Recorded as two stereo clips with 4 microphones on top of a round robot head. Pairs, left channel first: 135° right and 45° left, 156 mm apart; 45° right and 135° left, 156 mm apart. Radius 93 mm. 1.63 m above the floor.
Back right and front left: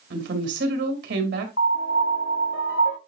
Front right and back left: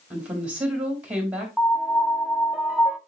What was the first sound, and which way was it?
A woman speaking, 50° left.